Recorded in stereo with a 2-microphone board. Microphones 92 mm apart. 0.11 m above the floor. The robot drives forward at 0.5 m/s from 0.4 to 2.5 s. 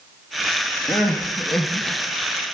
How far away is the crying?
About 1.6 m.